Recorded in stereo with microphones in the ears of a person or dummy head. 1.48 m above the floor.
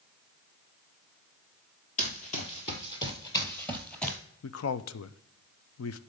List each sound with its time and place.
2.0 s running footsteps: 35° left (ahead or behind), 1.8 m; by 4.2 s centre (ahead or behind), 1.6 m
4.4 s a man speaking: 85° left, 0.6 m